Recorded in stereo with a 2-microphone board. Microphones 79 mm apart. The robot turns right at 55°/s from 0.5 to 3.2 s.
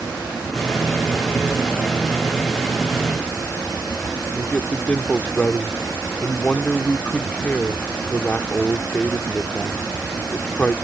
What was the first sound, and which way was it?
A man speaking, 20° left (ahead or behind).